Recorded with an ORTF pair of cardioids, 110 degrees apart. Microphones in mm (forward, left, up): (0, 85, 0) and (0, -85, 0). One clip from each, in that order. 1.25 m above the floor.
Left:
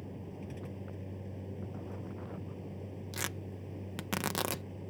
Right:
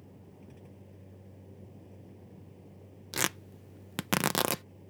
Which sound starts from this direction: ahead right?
Tearing paper, at 3.1 s.